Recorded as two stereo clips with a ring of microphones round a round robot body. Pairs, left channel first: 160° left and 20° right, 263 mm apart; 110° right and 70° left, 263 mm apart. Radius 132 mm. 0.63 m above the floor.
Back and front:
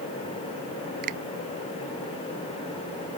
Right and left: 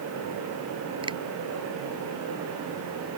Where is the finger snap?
5° right.